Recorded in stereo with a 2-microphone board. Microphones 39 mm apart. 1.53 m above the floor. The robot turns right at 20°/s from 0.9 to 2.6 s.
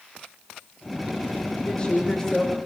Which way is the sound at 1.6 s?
30° left (ahead or behind).